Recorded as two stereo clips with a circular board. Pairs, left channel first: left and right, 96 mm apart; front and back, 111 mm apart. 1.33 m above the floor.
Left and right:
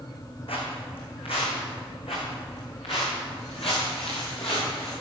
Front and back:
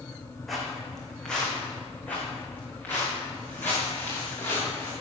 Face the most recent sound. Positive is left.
turn(degrees=65)